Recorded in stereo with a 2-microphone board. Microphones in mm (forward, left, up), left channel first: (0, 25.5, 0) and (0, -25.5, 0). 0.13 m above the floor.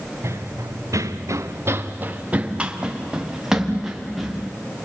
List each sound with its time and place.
0.2 s running footsteps: 55° right (ahead or behind), 1.7 m; by 4.4 s 5° right (ahead or behind), 4 m